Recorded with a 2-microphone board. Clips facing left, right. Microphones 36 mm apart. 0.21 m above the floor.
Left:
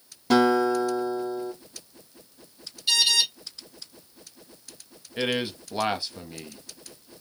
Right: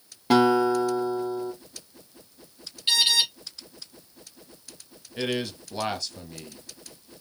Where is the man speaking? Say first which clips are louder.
Left 2 dB; 20° left (ahead or behind), 1.0 m.